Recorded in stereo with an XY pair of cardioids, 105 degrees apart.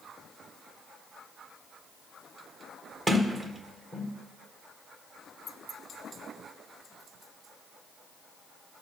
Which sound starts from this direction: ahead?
A sliding door, at 3.1 s.